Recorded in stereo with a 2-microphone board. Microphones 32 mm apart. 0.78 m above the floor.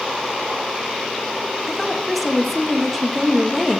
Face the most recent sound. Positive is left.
turn(degrees=0)  # may be behind; listen again after turning